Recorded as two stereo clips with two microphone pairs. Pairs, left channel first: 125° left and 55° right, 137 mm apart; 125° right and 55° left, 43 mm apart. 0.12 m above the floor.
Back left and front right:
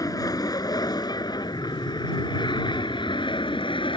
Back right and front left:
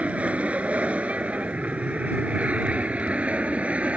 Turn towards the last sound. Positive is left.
turn(degrees=95)